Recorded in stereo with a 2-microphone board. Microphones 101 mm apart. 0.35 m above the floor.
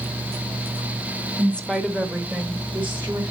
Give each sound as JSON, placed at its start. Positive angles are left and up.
{"t": 1.4, "sound": "a woman speaking", "side_deg": 15, "distance_m": 1.1}